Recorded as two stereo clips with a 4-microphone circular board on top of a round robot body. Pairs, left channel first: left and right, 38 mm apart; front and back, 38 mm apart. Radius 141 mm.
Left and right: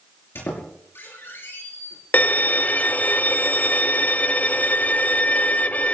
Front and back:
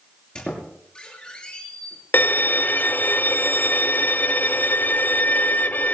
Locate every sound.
0.3 s a squeak: 70° left, 6 m
2.1 s a violin: 40° left, 0.7 m